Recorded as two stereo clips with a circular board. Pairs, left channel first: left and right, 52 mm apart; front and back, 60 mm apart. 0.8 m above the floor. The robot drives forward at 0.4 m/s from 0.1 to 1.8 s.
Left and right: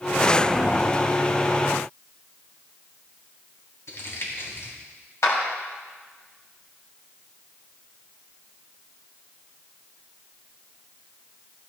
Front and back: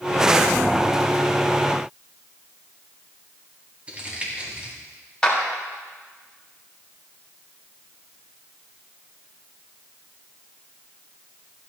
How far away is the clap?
About 3.5 m.